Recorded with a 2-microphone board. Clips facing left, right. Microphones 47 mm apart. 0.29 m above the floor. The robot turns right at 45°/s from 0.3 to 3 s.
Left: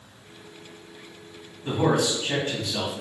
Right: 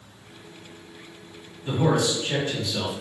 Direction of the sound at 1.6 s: 45° left.